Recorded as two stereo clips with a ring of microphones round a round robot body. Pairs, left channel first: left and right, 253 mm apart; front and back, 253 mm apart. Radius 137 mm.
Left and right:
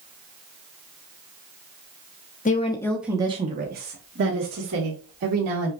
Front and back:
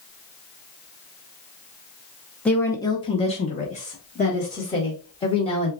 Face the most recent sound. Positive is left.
turn(degrees=-65)